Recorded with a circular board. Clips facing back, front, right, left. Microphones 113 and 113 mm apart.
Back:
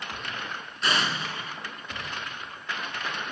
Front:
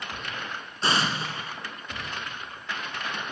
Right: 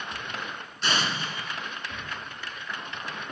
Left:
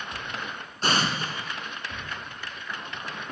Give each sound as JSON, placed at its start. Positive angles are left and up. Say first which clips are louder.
{"t": 0.8, "sound": "an explosion", "louder": "front 2 dB, left 3 dB", "azimuth_deg": 50, "distance_m": 1.4}